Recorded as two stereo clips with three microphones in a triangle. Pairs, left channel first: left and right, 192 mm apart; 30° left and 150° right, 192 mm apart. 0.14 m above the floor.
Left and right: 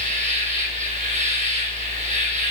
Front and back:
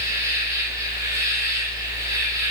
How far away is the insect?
About 1.6 m.